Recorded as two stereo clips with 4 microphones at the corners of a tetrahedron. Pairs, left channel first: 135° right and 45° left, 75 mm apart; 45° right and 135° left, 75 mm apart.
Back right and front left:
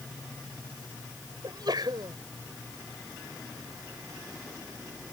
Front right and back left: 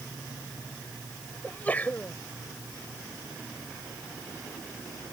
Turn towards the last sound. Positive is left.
turn(degrees=25)